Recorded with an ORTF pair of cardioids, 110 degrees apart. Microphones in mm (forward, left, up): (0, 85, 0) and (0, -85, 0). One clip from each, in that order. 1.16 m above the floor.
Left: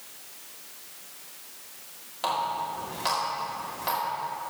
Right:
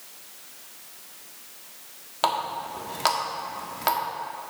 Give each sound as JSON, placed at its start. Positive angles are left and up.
{"t": 2.2, "sound": "a running tap", "azimuth_deg": -50, "distance_m": 1.5}